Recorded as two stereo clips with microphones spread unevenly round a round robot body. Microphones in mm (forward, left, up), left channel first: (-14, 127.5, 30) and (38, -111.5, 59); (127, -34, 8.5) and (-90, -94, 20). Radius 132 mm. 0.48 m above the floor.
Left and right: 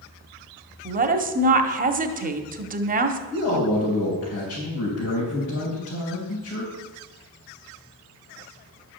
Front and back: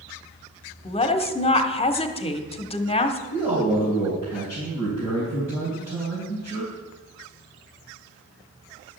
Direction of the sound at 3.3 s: 130° left.